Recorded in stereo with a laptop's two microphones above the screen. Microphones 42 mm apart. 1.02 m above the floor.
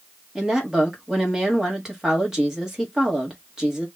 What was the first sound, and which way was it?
A woman speaking, 15° right (ahead or behind).